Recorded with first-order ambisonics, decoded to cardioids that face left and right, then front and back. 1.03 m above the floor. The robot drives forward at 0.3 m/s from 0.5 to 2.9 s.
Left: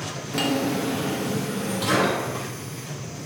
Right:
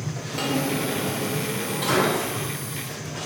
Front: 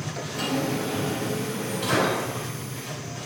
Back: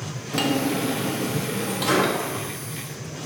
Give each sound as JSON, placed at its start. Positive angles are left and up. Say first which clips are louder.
{"t": 0.3, "sound": "a drawer", "louder": "left 1 dB, back 4 dB", "azimuth_deg": 155, "distance_m": 0.5}